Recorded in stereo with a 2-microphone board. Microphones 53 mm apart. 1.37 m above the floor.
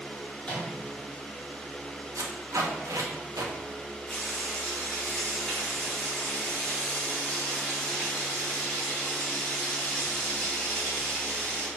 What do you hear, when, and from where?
0.4 s a microwave: 25° left (ahead or behind), 1.7 m
2.1 s tape being pulled: 80° right, 0.8 m
4.1 s frying: 25° left (ahead or behind), 1.8 m